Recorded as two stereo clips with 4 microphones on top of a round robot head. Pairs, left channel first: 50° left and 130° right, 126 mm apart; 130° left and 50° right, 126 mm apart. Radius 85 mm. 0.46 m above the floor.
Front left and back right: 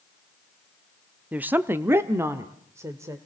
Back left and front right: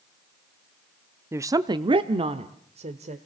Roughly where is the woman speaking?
Right.